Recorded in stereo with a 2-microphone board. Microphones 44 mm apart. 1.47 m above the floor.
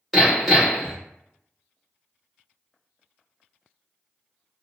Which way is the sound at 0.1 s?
5° left (ahead or behind).